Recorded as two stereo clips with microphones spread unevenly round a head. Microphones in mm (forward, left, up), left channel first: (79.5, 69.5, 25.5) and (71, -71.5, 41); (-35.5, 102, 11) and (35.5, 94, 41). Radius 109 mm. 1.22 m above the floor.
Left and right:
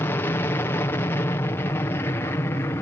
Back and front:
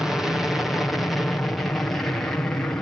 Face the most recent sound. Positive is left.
turn(degrees=140)